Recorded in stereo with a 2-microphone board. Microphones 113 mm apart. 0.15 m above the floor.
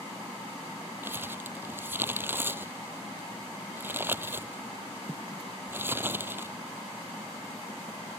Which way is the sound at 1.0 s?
20° right (ahead or behind).